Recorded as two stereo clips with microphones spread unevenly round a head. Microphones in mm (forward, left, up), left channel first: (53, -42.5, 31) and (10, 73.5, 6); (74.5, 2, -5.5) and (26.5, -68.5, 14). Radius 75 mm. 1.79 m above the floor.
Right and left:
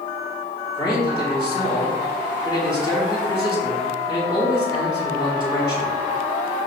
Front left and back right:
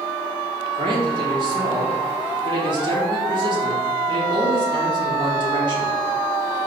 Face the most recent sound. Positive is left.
turn(degrees=-125)